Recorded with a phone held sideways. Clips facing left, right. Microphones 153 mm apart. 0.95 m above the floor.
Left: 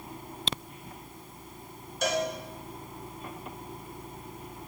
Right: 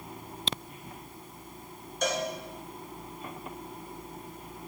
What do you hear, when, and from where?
2.0 s a cowbell: 5° left (ahead or behind), 2.5 m